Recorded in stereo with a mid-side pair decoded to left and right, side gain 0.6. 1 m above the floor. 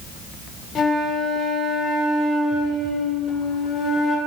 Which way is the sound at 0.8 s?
35° left.